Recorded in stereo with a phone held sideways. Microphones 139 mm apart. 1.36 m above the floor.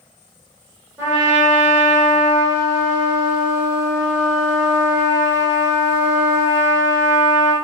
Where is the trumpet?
20° right (ahead or behind), 1.3 m.